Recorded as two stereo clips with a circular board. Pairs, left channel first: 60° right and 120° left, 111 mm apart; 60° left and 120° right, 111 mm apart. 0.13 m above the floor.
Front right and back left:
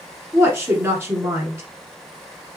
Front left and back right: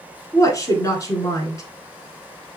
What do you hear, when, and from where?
0.3 s a woman speaking: 80° left, 1.2 m